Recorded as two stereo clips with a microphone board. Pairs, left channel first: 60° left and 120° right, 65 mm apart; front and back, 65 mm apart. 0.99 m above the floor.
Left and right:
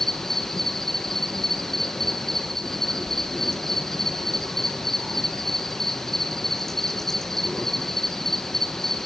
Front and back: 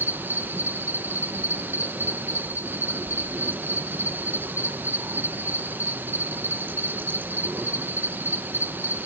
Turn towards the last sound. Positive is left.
turn(degrees=140)